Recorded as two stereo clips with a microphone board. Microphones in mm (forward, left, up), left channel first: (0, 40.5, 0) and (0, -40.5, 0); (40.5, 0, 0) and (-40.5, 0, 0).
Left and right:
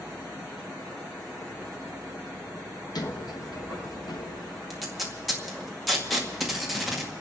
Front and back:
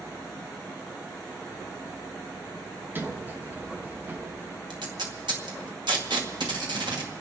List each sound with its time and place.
3.0 s a sliding door: 115° left, 1.1 m
4.7 s tape being pulled: straight behind, 2.0 m